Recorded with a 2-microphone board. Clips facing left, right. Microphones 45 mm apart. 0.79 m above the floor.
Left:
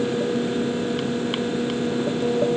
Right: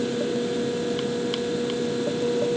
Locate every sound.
Only background noise.